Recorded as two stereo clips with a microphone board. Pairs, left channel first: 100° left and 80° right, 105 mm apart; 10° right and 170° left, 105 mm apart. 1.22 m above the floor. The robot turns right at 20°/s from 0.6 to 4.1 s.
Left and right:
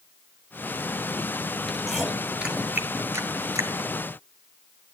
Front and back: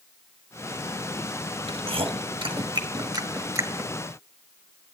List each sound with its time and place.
1.7 s chewing: 175° right, 1.1 m; by 3.9 s 130° right, 1.1 m